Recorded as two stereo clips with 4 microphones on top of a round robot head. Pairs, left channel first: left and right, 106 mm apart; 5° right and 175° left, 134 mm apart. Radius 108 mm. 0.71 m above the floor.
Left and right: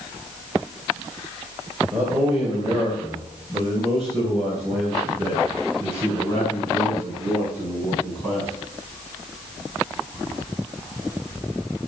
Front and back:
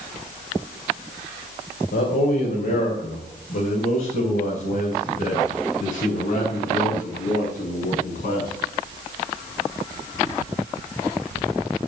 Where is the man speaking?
15° right, 3 m; by 8.5 s 10° left, 6 m.